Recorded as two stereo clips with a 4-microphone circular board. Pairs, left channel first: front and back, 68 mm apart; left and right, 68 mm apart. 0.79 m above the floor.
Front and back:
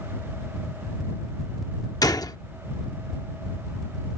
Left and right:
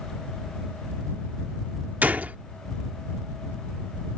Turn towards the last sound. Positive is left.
turn(degrees=-25)